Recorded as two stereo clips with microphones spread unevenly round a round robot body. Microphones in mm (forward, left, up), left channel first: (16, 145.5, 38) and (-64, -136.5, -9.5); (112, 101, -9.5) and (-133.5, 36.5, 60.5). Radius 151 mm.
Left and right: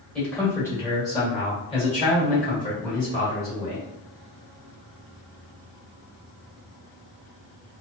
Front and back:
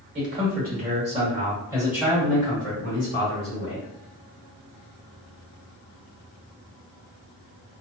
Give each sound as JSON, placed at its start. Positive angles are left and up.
{"t": 0.1, "sound": "a man speaking", "azimuth_deg": 175, "distance_m": 1.6}